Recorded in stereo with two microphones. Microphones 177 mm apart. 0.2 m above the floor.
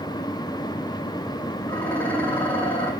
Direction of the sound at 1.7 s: 10° left (ahead or behind).